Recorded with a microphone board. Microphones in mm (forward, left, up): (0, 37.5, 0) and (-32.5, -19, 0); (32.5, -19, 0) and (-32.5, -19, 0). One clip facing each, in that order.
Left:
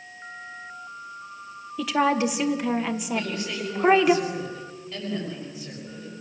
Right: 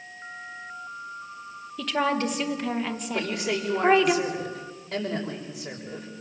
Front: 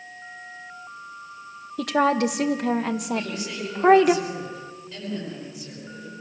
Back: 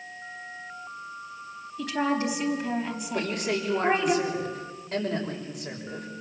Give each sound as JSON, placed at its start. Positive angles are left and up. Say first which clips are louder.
{"t": 1.8, "sound": "a woman speaking", "louder": "left 3 dB, front 6 dB", "azimuth_deg": -20, "distance_m": 2.0}
{"t": 3.1, "sound": "a man speaking", "louder": "right 1 dB, back 1 dB", "azimuth_deg": -140, "distance_m": 6.0}